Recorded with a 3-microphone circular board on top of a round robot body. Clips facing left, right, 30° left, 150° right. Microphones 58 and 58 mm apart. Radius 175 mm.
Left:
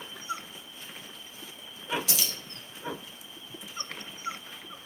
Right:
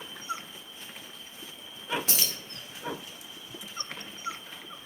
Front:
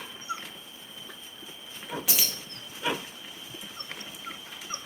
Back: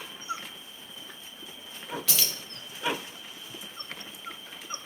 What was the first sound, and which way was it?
Keys jangling, 45° right.